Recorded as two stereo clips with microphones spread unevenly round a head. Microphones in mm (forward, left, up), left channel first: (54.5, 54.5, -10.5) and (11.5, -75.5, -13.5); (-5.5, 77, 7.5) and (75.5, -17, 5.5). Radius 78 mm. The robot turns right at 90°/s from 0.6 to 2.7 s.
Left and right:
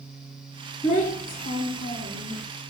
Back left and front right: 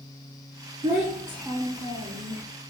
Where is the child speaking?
Straight ahead, 1.1 m; by 2.4 s 145° left, 1.1 m.